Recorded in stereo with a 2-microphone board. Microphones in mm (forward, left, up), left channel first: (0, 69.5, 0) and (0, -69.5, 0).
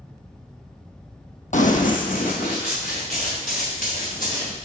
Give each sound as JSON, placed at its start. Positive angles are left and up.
{"t": 1.5, "sound": "running footsteps", "side_deg": 65, "distance_m": 0.7}